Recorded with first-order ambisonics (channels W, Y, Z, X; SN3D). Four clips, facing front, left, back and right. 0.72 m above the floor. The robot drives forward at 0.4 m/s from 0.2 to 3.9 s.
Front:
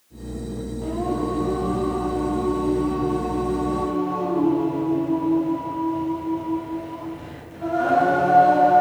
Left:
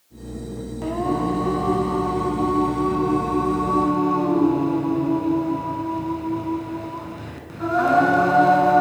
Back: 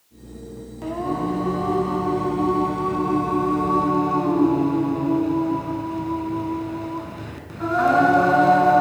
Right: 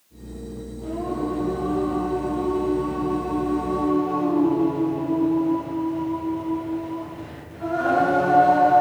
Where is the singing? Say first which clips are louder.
Left 4 dB, back 1 dB; 115° left, 1.8 m; by 8.8 s 140° left, 2.5 m.